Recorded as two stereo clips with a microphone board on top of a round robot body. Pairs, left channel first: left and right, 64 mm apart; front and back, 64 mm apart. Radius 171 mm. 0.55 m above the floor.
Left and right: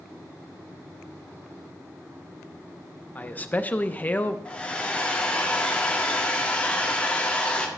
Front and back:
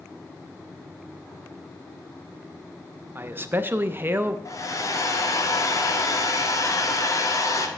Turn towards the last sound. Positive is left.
turn(degrees=20)